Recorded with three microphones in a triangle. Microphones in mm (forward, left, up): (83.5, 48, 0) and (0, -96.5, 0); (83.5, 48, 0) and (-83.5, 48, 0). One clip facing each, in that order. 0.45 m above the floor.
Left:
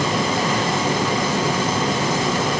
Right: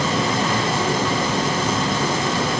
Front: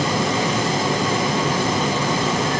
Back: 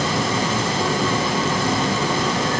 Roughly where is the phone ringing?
No phone ringing in this recording.